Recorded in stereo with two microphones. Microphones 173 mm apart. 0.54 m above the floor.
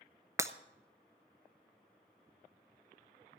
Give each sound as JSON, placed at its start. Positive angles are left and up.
{"t": 0.4, "sound": "breaking glass", "side_deg": -15, "distance_m": 0.6}